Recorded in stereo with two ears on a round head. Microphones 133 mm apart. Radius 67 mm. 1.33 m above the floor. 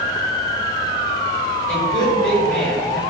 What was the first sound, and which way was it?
A woman speaking, 5° left (ahead or behind).